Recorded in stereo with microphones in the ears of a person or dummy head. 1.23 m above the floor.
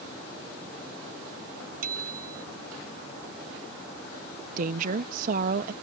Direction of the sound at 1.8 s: 55° right (ahead or behind).